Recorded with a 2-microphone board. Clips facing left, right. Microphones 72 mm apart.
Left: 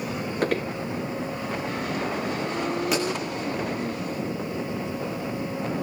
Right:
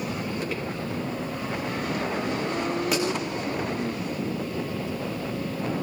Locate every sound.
0.4 s footsteps: 60° left (ahead or behind), 1.5 m
2.9 s a pop: centre (ahead or behind), 9.5 m